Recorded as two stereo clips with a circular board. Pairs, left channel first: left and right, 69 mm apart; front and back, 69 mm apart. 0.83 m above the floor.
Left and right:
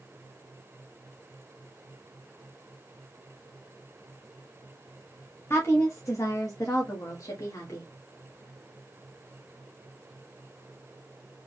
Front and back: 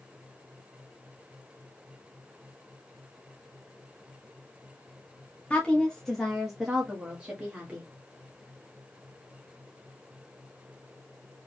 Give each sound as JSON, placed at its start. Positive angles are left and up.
{"t": 5.5, "sound": "a woman speaking", "azimuth_deg": 65, "distance_m": 1.1}